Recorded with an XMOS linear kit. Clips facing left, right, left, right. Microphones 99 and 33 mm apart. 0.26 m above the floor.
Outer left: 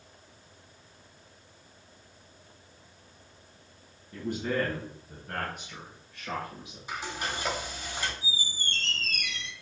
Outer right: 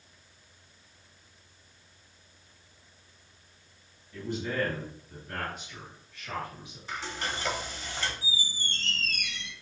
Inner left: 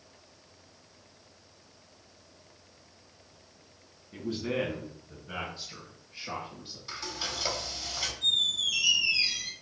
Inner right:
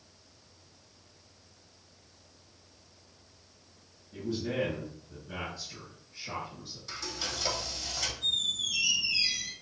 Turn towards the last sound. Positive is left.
turn(degrees=50)  # may be behind; listen again after turning